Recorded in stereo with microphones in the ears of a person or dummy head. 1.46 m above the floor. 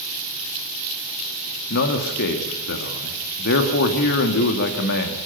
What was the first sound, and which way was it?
A man speaking, 60° left (ahead or behind).